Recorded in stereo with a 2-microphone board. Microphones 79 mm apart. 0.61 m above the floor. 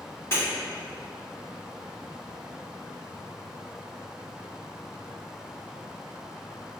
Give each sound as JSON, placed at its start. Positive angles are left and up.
{"t": 0.3, "sound": "breaking glass", "side_deg": 35, "distance_m": 1.6}